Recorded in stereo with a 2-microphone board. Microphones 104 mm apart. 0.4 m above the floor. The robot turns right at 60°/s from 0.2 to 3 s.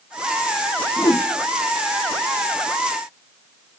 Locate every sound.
1.0 s a whoosh: 35° left (ahead or behind), 0.5 m; by 1.3 s 50° left (ahead or behind), 0.5 m